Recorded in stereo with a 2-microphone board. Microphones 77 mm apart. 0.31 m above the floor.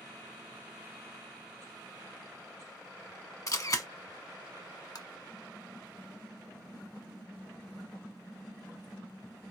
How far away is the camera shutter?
About 0.9 m.